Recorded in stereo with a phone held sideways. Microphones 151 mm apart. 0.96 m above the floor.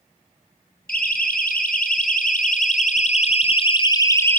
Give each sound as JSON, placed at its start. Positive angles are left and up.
{"t": 0.9, "sound": "a siren", "side_deg": 80, "distance_m": 4.5}